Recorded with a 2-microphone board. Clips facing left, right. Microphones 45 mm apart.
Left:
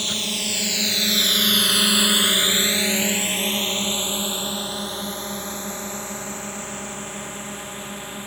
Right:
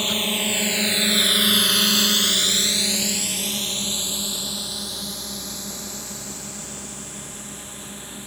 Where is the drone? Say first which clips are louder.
Right 3 dB; 25° right (ahead or behind); by 8.3 s 35° left (ahead or behind).